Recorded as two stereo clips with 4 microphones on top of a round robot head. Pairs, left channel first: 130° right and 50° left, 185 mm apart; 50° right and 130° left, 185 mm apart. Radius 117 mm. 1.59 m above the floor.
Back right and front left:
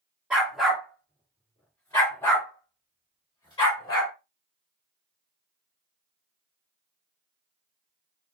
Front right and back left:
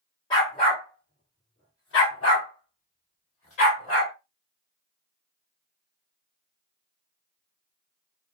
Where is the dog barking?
20° right, 1.0 m; by 4.1 s 65° right, 2.5 m.